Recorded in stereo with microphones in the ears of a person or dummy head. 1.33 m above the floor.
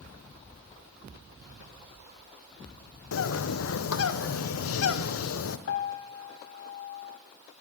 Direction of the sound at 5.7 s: 65° left (ahead or behind).